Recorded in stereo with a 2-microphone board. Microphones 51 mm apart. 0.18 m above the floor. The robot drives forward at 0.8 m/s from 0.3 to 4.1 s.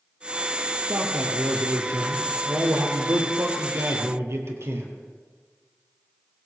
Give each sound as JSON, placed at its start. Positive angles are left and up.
{"t": 0.9, "sound": "a man speaking", "side_deg": -65, "distance_m": 3.5}